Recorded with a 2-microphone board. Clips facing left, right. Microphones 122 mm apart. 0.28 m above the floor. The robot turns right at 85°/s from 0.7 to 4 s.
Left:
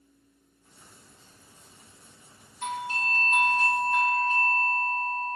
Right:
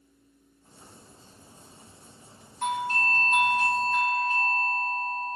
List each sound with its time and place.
2.6 s a doorbell: 90° right, 3.5 m; by 5.3 s 25° left, 3.5 m